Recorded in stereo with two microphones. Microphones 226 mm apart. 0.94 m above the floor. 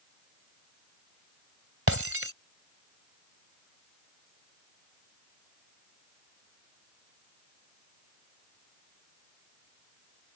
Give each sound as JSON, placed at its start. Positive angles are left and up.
{"t": 1.9, "sound": "breaking glass", "side_deg": -70}